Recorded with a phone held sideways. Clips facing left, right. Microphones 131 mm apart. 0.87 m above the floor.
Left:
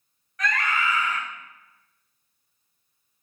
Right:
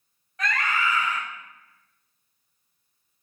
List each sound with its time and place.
0.4 s a scream: 30° right (ahead or behind), 1.4 m